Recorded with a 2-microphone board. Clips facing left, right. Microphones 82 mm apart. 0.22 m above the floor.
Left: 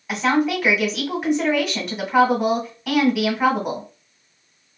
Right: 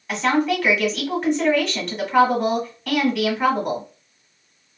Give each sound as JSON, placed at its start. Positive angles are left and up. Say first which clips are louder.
{"t": 0.1, "sound": "a woman speaking", "louder": "even", "side_deg": 5, "distance_m": 1.4}